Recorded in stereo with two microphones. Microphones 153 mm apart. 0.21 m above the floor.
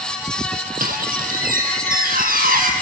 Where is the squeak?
70° right (ahead or behind), 1.8 m.